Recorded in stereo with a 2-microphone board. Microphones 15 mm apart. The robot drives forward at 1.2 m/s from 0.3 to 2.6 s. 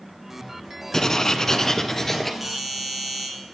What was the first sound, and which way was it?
Writing, 30° left (ahead or behind).